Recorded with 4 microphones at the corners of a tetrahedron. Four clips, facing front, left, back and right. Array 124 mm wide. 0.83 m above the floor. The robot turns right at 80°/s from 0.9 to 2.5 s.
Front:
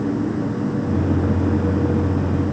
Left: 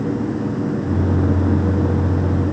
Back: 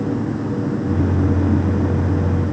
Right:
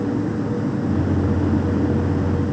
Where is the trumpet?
I don't hear a trumpet.